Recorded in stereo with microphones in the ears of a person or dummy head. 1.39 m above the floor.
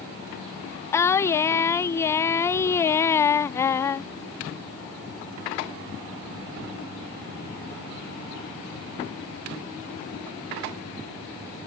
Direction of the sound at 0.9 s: 10° left (ahead or behind).